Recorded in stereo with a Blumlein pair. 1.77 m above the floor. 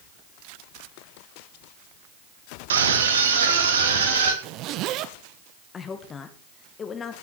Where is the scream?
65° right, 2.5 m; by 4.3 s 60° right, 4 m.